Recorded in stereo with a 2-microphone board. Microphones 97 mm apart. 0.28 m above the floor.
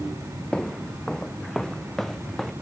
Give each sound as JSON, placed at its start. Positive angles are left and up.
{"t": 0.5, "sound": "footsteps", "side_deg": 5}